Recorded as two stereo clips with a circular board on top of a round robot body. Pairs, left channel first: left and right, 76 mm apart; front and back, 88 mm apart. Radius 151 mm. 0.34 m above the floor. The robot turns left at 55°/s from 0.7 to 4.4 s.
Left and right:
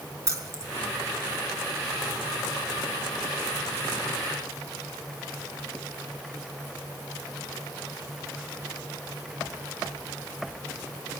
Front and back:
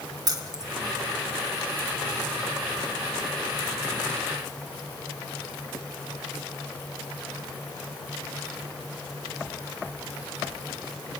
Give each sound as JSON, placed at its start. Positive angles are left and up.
{"t": 0.3, "sound": "keys jangling", "azimuth_deg": -135, "distance_m": 1.8}